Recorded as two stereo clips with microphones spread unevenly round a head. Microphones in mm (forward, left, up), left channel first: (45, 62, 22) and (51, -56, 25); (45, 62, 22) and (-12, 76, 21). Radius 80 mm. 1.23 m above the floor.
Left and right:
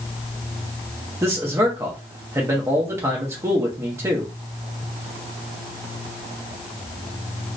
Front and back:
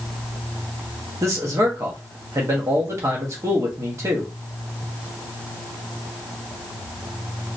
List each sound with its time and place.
1.2 s a man speaking: 155° right, 0.9 m